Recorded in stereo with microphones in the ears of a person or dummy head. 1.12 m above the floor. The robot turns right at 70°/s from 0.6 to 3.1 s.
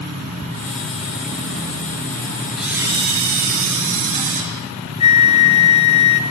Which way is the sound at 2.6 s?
175° right.